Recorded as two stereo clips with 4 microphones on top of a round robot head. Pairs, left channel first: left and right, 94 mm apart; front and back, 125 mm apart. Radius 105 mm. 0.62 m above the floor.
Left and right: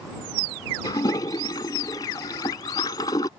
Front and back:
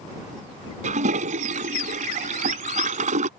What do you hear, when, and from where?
0.8 s a toilet flushing: 155° left